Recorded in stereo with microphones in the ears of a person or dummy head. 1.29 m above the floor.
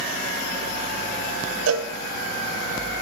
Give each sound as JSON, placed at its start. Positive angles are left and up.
{"t": 1.7, "sound": "a cowbell", "side_deg": -80, "distance_m": 0.8}